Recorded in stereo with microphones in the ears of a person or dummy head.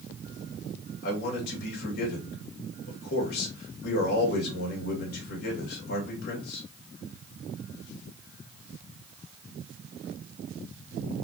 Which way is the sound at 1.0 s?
50° left (ahead or behind).